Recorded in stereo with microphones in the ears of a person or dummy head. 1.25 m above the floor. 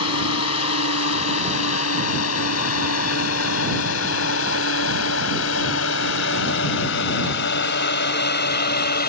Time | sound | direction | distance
0.0 | a drone | 85° left | ?